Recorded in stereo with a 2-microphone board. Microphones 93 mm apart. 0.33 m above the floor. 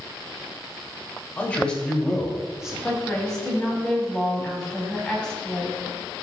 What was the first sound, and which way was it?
A man speaking, 20° left (ahead or behind).